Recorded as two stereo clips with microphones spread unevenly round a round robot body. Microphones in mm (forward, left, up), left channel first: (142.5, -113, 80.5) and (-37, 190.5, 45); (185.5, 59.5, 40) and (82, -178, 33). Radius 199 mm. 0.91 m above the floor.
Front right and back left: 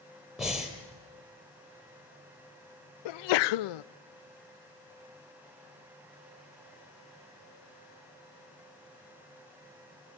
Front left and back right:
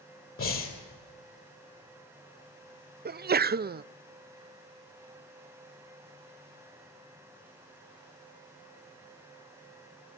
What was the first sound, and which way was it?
Breathing, 30° left.